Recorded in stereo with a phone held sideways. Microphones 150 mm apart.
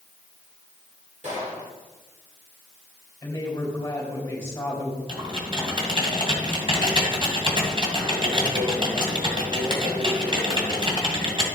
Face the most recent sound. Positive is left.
turn(degrees=-35)  # may be behind; listen again after turning